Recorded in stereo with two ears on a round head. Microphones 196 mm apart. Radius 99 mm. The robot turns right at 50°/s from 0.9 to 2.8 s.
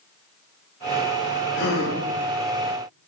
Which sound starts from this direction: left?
A gasp, at 1.6 s.